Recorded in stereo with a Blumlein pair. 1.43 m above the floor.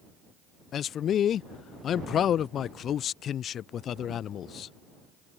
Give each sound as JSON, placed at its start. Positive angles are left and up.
{"t": 0.7, "sound": "a man speaking", "azimuth_deg": 30}